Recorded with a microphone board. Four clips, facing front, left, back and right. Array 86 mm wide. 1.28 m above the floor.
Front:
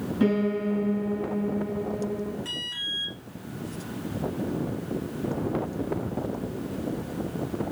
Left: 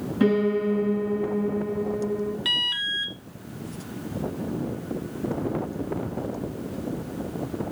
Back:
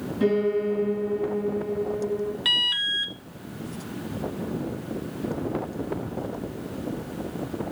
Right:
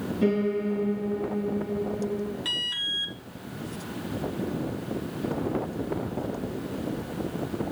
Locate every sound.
0.2 s a piano: 75° left, 6 m
2.5 s an alarm: 160° left, 1.1 m